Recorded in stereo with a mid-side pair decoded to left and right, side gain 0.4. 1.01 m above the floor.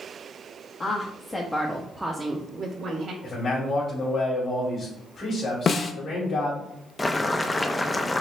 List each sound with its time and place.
0.8 s a woman speaking: 45° left, 1.3 m; by 3.1 s 65° right, 1.3 m
3.2 s a man speaking: 40° left, 2.5 m
5.7 s a snare drum: 50° left, 0.6 m
7.0 s boiling: 20° left, 0.6 m